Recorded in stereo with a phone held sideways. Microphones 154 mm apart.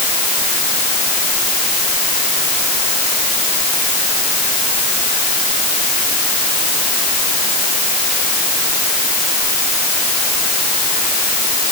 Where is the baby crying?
I don't hear a baby crying.